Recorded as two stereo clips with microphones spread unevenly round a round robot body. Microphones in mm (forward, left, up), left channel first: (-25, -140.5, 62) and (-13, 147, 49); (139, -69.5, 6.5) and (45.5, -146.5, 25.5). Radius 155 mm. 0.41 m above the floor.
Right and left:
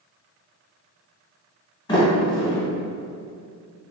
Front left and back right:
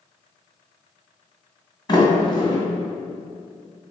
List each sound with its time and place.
1.9 s a sliding door: 15° right, 1.5 m